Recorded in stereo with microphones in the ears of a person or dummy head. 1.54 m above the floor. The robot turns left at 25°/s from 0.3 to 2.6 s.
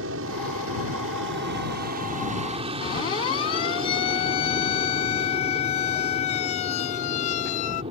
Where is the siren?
30° left (ahead or behind); by 7.8 s 45° left (ahead or behind).